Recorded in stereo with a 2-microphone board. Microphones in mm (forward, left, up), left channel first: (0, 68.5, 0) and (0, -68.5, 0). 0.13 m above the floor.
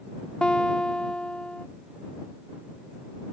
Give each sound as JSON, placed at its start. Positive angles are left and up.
{"t": 0.4, "sound": "a guitar", "side_deg": 5}